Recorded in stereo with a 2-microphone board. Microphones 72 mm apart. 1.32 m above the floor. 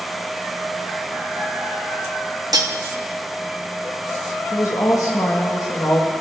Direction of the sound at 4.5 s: 50° left (ahead or behind).